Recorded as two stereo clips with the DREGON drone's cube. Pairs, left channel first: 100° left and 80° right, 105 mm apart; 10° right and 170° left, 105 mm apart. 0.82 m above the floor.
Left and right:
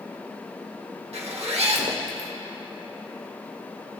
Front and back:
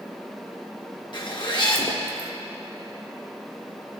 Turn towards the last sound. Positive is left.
turn(degrees=-55)